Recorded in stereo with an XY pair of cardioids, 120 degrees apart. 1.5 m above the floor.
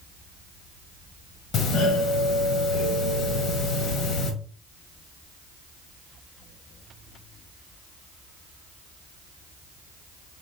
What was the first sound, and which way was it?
A doorbell, 65° left.